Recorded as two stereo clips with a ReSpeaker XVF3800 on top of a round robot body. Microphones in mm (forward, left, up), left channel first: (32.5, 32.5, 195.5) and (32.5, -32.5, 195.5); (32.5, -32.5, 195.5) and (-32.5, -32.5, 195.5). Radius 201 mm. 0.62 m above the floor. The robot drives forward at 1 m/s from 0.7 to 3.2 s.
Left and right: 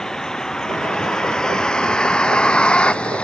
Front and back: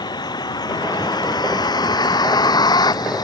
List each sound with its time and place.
0.0 s a vehicle: 10° left; by 3.2 s 20° left